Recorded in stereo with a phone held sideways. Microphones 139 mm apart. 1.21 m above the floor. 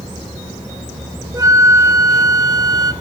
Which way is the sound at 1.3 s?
25° right (ahead or behind).